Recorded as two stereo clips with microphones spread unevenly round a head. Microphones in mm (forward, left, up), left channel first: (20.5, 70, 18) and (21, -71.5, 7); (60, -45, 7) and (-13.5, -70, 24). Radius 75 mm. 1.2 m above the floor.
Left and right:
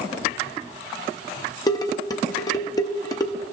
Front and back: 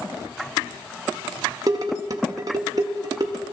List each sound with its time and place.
1.7 s dishes clattering: 150° left, 0.7 m